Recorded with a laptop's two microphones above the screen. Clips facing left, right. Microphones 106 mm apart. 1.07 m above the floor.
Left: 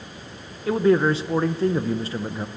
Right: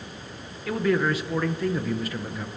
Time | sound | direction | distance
0.7 | a man speaking | 30° left (ahead or behind) | 0.6 m